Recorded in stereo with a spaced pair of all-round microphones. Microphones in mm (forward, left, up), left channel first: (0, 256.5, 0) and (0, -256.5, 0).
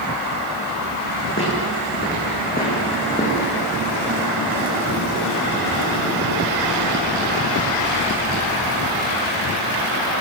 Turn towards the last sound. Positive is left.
turn(degrees=10)  # may be behind; listen again after turning